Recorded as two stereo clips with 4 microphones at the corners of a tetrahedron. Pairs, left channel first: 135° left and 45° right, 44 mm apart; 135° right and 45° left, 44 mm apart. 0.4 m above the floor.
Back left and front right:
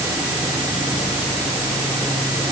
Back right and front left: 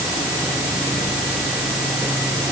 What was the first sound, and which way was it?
Only background noise.